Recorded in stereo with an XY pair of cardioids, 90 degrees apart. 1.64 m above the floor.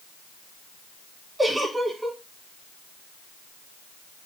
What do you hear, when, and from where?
1.4 s a giggle: 20° right, 3.5 m